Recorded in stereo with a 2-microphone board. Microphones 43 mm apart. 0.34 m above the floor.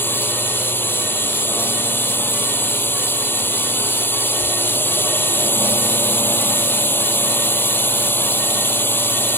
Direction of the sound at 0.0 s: 55° left (ahead or behind).